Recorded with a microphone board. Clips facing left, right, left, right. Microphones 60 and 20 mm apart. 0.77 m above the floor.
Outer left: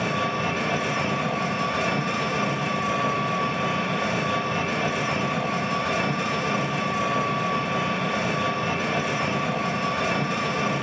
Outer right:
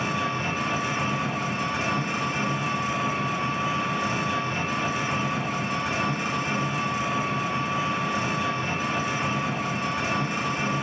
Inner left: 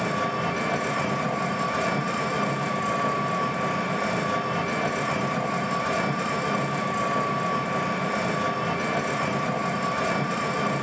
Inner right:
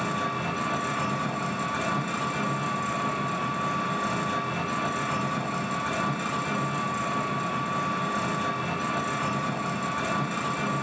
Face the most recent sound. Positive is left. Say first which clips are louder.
# outer left 2 dB, inner left 3 dB
turn(degrees=75)  # may be behind; listen again after turning